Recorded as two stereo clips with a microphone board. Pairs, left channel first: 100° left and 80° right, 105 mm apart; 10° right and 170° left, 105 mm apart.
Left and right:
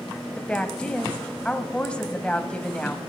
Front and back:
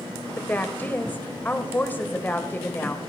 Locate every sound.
0.4 s a woman speaking: 35° left, 1.1 m